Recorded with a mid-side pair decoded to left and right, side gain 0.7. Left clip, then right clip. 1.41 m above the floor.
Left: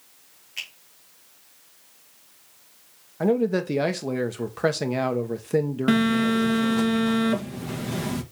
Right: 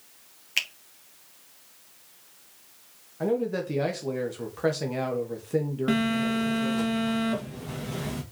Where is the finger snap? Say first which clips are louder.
Right 7 dB; 55° right, 1.5 m.